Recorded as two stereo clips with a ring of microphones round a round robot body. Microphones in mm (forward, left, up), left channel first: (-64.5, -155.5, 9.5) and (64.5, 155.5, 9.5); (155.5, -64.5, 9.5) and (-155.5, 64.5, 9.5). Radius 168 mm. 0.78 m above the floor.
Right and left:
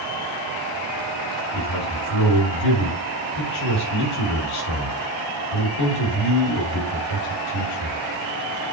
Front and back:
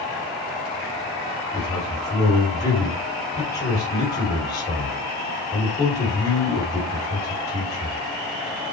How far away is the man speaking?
About 2.5 m.